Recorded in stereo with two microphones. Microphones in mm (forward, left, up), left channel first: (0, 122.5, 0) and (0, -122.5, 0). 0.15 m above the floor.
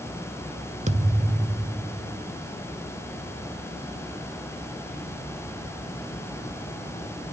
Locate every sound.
0.9 s a thud: 30° right (ahead or behind), 0.6 m